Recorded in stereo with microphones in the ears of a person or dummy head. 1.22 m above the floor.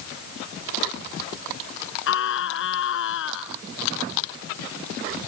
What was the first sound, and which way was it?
A scream, 75° left (ahead or behind).